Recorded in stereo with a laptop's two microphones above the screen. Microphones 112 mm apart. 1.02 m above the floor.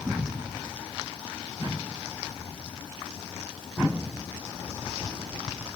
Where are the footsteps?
I don't hear footsteps.